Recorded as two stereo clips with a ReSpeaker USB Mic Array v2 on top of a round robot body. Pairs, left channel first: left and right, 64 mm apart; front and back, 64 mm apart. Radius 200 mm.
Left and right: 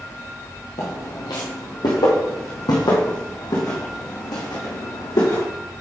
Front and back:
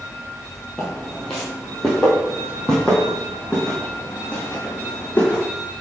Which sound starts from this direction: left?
Footsteps, at 0.8 s.